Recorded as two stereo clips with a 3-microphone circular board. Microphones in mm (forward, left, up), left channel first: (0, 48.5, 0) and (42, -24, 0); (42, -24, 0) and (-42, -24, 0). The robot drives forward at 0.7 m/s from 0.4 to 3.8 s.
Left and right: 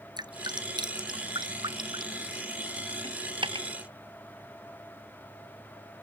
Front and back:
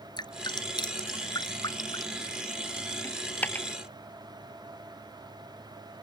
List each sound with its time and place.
0.2 s dripping: 30° right; by 2.2 s 35° right
3.0 s a dropped coin: 65° right; by 3.7 s 70° right